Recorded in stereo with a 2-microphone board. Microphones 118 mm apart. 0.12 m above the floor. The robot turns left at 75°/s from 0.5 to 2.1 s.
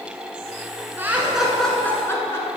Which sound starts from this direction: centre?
Laughter, at 1.0 s.